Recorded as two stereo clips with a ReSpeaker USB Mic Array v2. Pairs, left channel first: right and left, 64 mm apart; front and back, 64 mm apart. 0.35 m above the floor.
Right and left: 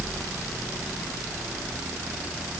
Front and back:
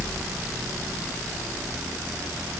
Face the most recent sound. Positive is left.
No sound to turn to.